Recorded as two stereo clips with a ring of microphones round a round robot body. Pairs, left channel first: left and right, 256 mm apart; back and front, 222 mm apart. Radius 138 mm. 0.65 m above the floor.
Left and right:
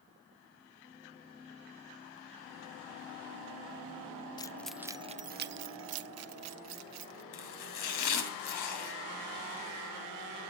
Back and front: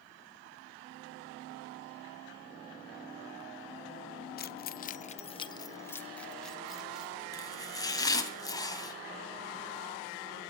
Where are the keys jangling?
160° left, 0.6 m; by 7.2 s 85° right, 1.3 m.